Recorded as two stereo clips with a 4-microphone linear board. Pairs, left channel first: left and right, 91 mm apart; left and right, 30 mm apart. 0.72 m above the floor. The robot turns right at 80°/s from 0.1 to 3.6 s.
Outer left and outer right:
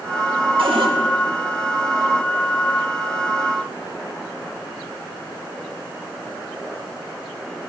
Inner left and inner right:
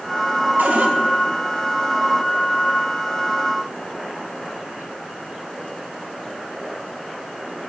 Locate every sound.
0.6 s a cupboard door: 75° right (ahead or behind), 0.9 m; by 0.9 s 55° right (ahead or behind), 0.9 m